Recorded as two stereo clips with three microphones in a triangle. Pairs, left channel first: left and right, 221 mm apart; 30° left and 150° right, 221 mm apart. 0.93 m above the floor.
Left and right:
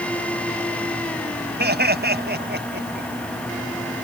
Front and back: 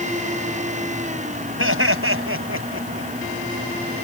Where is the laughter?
135° right; by 3.1 s 130° right.